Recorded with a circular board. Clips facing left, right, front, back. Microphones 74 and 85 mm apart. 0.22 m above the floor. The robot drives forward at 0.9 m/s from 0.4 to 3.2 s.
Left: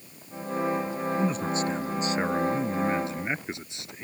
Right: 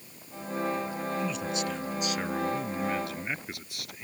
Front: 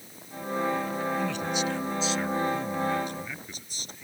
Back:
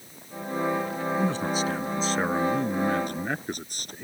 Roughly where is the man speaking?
Behind left.